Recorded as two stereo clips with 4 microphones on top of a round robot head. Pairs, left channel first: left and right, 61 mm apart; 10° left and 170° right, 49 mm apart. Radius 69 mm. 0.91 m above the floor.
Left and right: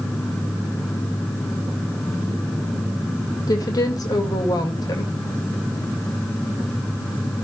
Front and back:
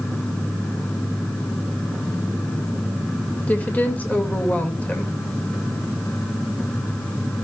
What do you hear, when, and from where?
3.5 s a woman speaking: 70° left, 3 m